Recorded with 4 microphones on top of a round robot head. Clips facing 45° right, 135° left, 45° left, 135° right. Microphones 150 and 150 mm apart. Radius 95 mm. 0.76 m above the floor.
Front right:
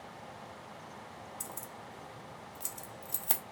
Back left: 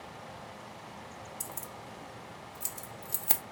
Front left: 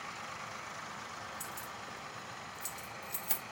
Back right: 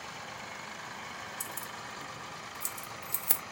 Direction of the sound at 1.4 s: 140° right.